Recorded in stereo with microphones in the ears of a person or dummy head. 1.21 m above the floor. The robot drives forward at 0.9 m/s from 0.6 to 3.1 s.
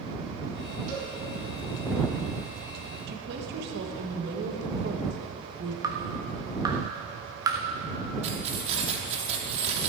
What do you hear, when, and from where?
0.9 s a cowbell: 50° right (ahead or behind), 4.5 m
3.1 s a woman speaking: 60° right (ahead or behind), 1.4 m
5.8 s dripping: 15° right (ahead or behind), 0.9 m
8.2 s keys jangling: 35° right (ahead or behind), 1.5 m